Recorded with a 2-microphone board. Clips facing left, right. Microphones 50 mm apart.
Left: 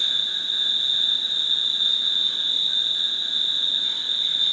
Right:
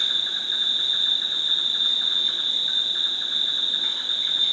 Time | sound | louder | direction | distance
0.0 | an insect | even | 50° right (ahead or behind) | 2.5 m